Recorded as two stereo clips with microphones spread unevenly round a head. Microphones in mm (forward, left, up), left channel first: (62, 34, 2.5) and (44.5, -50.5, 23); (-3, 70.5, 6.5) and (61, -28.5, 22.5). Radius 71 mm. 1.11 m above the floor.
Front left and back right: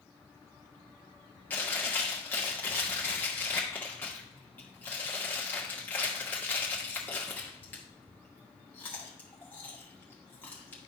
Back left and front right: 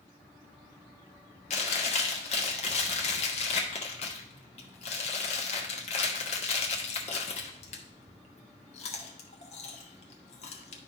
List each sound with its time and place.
1.5 s chewing: 145° left, 1.1 m